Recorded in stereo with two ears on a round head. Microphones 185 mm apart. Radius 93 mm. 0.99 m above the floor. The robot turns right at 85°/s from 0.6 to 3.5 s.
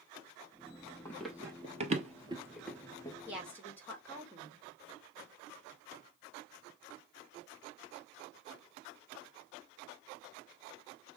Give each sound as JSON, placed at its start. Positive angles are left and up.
{"t": 1.1, "sound": "running footsteps", "side_deg": 15, "distance_m": 1.9}
{"t": 3.3, "sound": "a woman speaking", "side_deg": -10, "distance_m": 2.5}